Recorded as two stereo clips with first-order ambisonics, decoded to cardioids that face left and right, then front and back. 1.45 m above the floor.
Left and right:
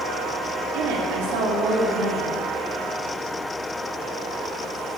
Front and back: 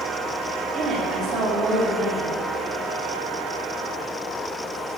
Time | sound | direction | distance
0.7 | a woman speaking | 110° right | 3 m